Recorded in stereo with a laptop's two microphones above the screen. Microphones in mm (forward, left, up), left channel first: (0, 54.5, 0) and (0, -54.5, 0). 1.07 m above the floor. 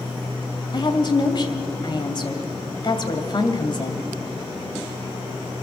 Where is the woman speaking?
45° left (ahead or behind), 2.5 m.